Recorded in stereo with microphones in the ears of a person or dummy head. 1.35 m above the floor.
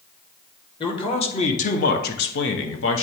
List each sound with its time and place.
0.8 s a man speaking: 25° left (ahead or behind), 1.5 m; by 3.0 s 65° left (ahead or behind), 1.1 m